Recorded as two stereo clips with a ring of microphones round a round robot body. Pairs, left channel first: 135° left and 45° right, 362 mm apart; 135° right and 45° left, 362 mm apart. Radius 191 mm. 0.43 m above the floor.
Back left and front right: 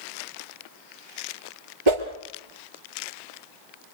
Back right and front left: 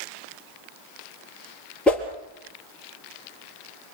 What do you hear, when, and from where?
1.9 s a whoosh: 50° right, 3.5 m